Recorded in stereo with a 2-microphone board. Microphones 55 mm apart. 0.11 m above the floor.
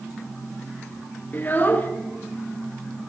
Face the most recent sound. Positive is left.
turn(degrees=35)  # may be behind; listen again after turning